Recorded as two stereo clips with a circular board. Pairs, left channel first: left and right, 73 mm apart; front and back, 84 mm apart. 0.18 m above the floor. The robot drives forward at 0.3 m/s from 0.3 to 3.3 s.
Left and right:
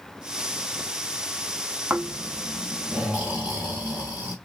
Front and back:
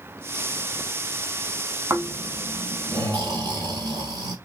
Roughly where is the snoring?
Behind right.